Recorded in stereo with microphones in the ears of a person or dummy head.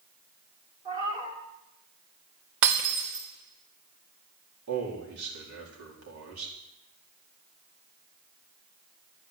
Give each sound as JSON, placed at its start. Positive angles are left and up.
{"t": 0.8, "sound": "a cat meowing", "side_deg": -25, "distance_m": 2.0}
{"t": 2.6, "sound": "breaking glass", "side_deg": -70, "distance_m": 3.5}
{"t": 4.7, "sound": "a man speaking", "side_deg": -80, "distance_m": 4.5}